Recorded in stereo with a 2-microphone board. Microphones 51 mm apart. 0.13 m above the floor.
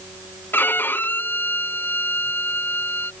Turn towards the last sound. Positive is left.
turn(degrees=40)  # may be behind; listen again after turning